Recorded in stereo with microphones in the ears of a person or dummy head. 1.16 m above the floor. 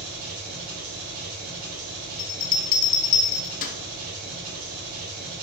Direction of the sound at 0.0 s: 50° right (ahead or behind).